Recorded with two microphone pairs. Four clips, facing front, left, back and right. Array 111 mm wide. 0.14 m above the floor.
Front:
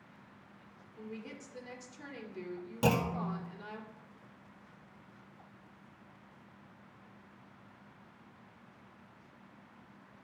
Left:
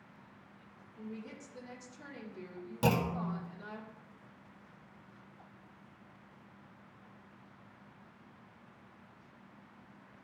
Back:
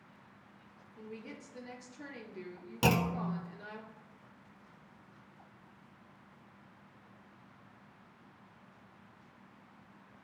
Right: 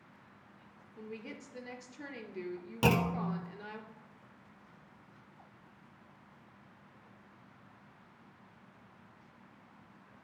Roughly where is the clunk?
Behind right.